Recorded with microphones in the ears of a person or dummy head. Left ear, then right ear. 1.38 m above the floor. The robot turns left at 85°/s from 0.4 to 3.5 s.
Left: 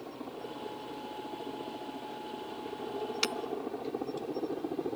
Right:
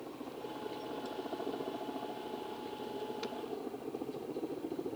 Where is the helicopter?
20° left (ahead or behind); by 5.0 s 65° left (ahead or behind).